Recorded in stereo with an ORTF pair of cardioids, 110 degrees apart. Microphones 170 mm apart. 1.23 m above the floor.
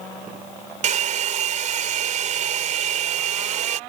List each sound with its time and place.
0.8 s a hair dryer: 45° right